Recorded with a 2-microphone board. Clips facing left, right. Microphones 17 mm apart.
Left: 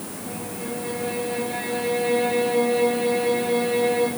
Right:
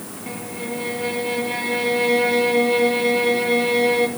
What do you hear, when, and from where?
0.3 s a violin: 45° right (ahead or behind), 2 m